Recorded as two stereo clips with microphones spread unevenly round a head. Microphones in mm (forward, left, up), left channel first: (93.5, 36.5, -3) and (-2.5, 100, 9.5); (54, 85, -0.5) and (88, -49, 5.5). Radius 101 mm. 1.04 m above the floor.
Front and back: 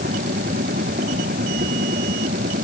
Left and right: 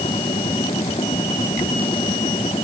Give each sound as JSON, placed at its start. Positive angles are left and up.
{"t": 0.0, "sound": "a machine running", "azimuth_deg": 175}